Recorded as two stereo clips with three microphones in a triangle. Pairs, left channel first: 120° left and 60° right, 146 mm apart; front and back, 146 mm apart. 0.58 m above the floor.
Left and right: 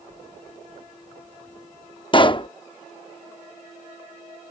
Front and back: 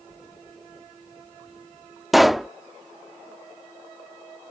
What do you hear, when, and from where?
2.1 s a pop: 90° left